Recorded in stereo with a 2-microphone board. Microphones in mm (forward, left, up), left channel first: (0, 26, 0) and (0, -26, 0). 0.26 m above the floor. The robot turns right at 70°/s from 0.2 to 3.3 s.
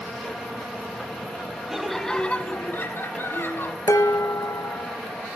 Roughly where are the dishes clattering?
Left.